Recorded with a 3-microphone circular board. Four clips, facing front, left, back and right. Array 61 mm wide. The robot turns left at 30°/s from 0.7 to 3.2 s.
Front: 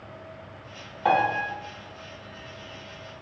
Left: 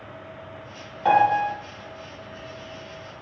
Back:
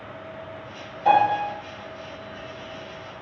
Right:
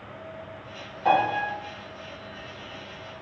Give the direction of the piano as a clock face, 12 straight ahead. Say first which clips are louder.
Left 4 dB, back 4 dB; 11 o'clock.